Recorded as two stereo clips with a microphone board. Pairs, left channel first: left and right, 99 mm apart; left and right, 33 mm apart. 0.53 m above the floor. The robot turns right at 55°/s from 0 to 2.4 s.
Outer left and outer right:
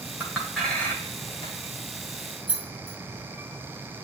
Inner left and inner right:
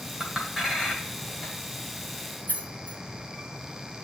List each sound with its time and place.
0.2 s a clink: 15° right (ahead or behind), 1.5 m; by 1.6 s 50° left (ahead or behind), 1.5 m
2.5 s keys jangling: 65° left (ahead or behind), 1.5 m